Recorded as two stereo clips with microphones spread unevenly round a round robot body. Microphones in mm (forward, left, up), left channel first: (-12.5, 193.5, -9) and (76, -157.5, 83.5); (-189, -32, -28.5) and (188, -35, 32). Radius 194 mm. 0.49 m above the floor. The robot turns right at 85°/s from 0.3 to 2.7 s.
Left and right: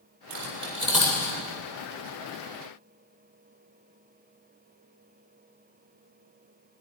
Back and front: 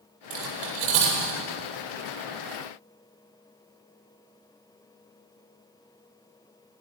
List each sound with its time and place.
0.3 s cutlery clinking: 45° right, 8 m; by 1.4 s 45° left, 8 m